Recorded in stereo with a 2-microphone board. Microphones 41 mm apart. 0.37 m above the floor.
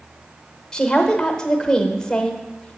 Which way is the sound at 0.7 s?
20° left (ahead or behind).